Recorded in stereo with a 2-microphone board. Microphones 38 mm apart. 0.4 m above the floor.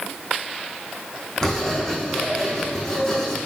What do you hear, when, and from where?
1.4 s writing: 15° left (ahead or behind), 4.5 m